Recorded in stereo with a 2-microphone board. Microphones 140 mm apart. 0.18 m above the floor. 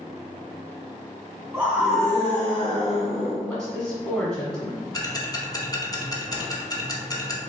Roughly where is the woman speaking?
Centre.